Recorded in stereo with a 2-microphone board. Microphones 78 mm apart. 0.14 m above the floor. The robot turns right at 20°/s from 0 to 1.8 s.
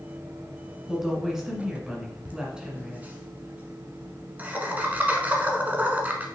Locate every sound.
0.9 s a woman speaking: centre (ahead or behind), 1.3 m; by 3.0 s 10° right (ahead or behind), 1.3 m
2.2 s laughter: 20° right (ahead or behind), 1.1 m